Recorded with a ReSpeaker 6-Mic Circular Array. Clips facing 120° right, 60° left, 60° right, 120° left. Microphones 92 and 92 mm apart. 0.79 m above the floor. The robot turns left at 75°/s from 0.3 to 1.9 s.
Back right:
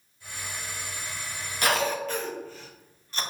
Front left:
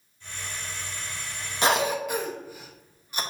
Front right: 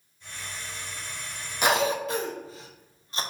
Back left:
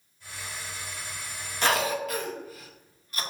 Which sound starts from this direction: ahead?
A cough, at 1.6 s.